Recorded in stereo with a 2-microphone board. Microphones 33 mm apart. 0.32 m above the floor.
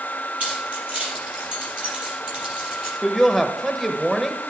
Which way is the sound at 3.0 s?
5° left (ahead or behind).